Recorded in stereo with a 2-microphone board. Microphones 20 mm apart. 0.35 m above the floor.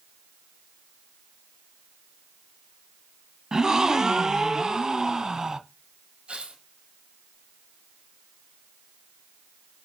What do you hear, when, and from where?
3.5 s a gasp: 30° right (ahead or behind), 0.6 m
6.3 s tearing paper: 65° right (ahead or behind), 2 m